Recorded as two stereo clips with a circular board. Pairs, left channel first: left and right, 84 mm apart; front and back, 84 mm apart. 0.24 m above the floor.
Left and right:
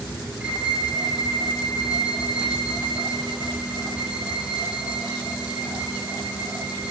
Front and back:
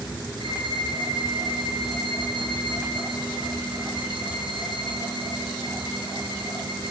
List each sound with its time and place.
0.4 s a violin: 170° right, 3.5 m